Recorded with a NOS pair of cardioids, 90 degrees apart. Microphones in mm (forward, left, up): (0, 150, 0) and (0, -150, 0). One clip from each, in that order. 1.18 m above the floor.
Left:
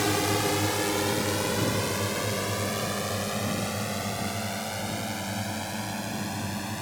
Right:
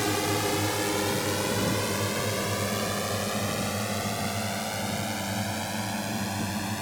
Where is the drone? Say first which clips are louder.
Left 1 dB; 10° left; by 6.8 s 15° right.